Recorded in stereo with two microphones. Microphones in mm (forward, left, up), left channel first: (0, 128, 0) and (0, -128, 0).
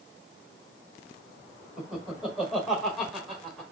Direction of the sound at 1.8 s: Centre (ahead or behind).